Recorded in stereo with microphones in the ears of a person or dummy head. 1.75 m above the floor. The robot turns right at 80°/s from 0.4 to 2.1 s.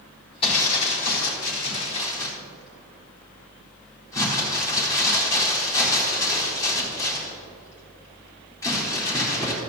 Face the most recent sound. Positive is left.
turn(degrees=165)